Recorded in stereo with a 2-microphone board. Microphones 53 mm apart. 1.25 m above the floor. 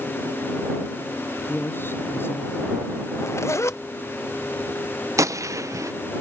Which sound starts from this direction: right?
A gunshot, at 5.2 s.